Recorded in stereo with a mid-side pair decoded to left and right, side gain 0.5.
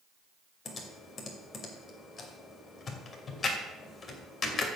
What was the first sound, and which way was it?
Typing on a keyboard, 40° left.